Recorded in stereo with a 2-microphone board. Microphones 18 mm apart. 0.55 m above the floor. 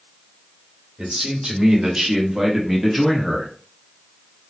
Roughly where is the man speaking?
Right.